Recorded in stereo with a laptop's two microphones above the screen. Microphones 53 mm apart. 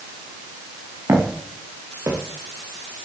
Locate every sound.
1.1 s footsteps: 60° right (ahead or behind), 5 m; by 2.2 s 65° right (ahead or behind), 5 m